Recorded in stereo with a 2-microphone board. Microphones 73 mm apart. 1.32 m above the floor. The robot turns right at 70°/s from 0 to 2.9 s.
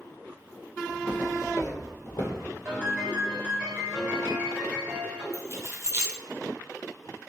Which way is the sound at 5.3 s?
35° right (ahead or behind).